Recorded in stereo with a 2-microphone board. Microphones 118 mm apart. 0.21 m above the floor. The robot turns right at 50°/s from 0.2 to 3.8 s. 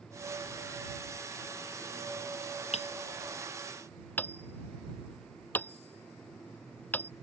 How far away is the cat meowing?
I don't hear a cat meowing.